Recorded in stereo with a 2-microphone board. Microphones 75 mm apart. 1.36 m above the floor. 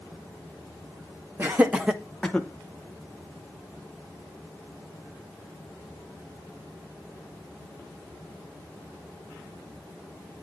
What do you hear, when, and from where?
1.4 s laughter: 25° right (ahead or behind), 1.5 m; by 2.5 s 20° left (ahead or behind), 1.2 m